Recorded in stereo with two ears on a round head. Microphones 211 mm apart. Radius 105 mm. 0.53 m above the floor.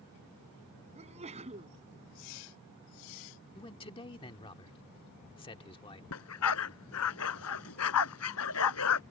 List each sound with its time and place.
0.9 s a sneeze: 30° right (ahead or behind)
3.5 s a man speaking: 20° left (ahead or behind)
6.1 s a dog barking: 70° left (ahead or behind)